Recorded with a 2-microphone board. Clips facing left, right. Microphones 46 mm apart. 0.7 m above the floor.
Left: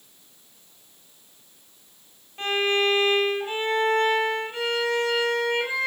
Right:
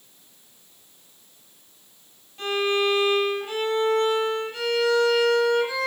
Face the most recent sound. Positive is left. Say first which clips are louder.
# even
turn(degrees=35)  # may be behind; listen again after turning